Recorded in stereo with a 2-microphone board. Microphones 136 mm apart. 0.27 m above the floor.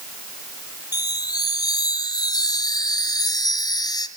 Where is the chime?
30° left (ahead or behind), 2.5 m.